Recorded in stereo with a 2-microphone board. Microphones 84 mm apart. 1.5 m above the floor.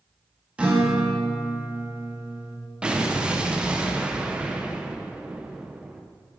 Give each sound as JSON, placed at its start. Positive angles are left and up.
{"t": 0.6, "sound": "a guitar", "side_deg": -15, "distance_m": 2.0}
{"t": 2.8, "sound": "an explosion", "side_deg": -10, "distance_m": 0.8}